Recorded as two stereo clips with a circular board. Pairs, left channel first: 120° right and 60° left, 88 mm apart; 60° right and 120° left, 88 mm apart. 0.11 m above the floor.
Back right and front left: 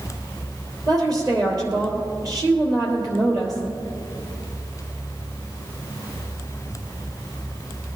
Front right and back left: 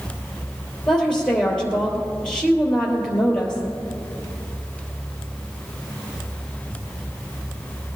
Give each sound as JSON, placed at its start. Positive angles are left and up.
{"t": 0.9, "sound": "a woman speaking", "azimuth_deg": 20, "distance_m": 3.5}